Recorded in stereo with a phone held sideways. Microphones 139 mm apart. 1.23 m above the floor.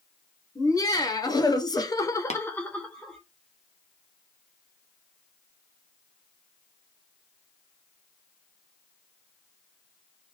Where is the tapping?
55° left (ahead or behind), 0.8 m.